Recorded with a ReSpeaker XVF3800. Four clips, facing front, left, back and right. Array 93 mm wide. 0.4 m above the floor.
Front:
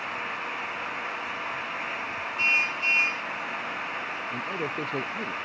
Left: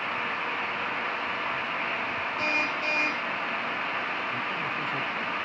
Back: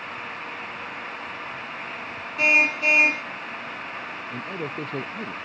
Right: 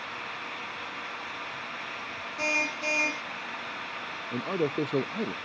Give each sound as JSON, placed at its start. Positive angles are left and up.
{"t": 2.4, "sound": "a car horn", "azimuth_deg": -170}
{"t": 4.3, "sound": "a man speaking", "azimuth_deg": -90}